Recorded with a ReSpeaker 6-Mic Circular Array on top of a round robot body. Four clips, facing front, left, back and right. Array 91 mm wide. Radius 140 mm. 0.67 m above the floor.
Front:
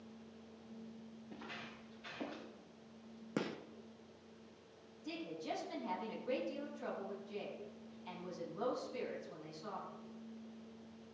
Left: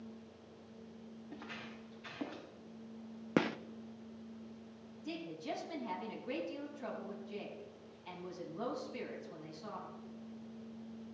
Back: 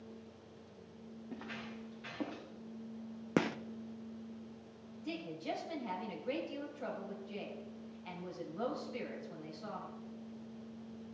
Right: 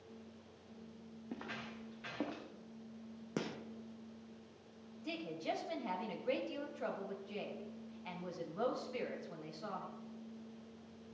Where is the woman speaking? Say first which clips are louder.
Right 1 dB, back 3 dB; 105° right, 4.5 m.